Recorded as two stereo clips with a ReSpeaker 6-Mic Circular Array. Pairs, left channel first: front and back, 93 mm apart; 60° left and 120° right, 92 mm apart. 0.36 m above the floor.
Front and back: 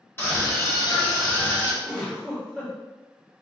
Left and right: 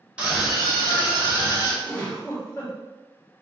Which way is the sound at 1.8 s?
85° left.